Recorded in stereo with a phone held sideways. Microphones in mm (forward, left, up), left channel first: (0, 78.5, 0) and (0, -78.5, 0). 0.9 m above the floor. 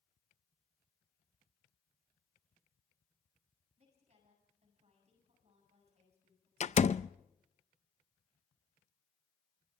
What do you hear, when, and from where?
3.8 s a woman speaking: 45° right (ahead or behind), 8 m
6.6 s a door slam: 45° left (ahead or behind), 0.5 m